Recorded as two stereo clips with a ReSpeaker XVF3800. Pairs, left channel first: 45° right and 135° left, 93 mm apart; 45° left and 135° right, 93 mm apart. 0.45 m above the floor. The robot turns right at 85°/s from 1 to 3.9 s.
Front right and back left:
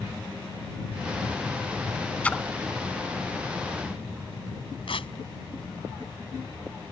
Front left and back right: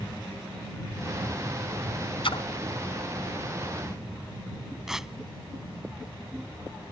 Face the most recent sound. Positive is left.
turn(degrees=-50)